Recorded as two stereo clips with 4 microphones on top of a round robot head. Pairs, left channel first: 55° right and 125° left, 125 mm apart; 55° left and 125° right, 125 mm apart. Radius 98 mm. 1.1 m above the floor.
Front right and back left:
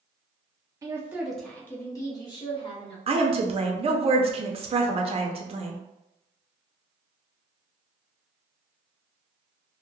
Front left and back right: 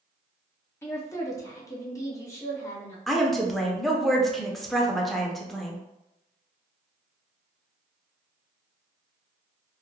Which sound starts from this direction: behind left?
A woman speaking, at 3.1 s.